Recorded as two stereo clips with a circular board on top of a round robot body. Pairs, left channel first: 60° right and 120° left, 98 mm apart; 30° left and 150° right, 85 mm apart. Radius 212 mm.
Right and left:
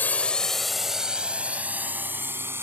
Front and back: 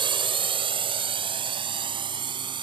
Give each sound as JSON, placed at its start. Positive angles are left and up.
{"t": 0.0, "sound": "a drone", "azimuth_deg": -130}